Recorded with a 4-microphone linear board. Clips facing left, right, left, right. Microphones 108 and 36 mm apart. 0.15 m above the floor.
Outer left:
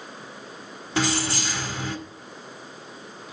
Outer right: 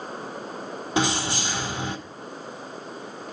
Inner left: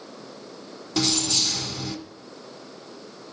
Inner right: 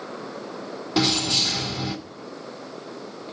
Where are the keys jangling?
20° right (ahead or behind), 0.9 m.